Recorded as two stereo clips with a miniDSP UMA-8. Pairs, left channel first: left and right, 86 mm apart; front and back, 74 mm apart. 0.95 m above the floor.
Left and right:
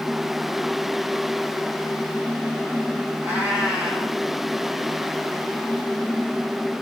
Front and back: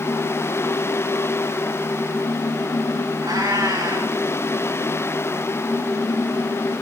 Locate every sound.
3.2 s a cat meowing: 155° right, 3 m